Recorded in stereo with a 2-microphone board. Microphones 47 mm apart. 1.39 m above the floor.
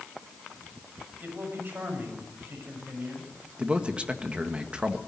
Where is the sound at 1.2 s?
50° right (ahead or behind), 7 m.